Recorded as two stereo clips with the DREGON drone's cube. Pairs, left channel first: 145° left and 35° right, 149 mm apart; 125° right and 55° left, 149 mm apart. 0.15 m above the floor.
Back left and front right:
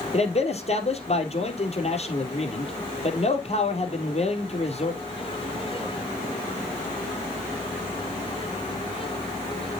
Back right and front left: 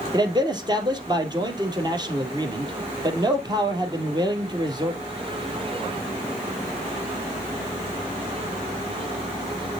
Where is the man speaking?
110° left, 3 m.